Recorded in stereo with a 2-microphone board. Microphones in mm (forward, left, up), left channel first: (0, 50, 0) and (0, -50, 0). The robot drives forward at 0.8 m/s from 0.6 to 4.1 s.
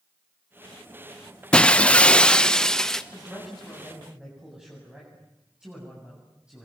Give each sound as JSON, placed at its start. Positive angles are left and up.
{"t": 1.5, "sound": "breaking glass", "side_deg": 10, "distance_m": 0.5}
{"t": 3.1, "sound": "a man speaking", "side_deg": -10, "distance_m": 8.5}